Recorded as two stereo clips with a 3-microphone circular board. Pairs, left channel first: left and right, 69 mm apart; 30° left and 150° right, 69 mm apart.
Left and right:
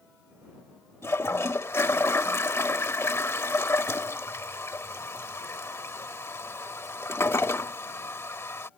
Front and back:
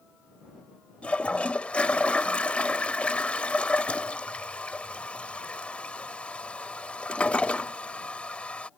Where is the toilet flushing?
95° left.